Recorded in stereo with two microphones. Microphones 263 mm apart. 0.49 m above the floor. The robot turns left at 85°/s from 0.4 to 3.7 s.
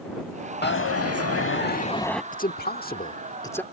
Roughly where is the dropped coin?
Behind left.